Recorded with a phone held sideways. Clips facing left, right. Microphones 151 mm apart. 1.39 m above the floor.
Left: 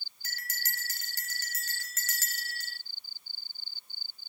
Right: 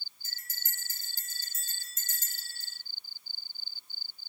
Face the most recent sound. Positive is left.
turn(degrees=75)  # may be behind; listen again after turning